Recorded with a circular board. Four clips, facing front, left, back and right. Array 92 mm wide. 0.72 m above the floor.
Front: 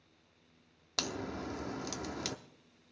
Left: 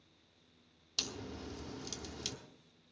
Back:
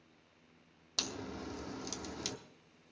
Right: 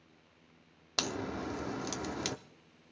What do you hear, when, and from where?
1.0 s a crack: 65° right, 0.7 m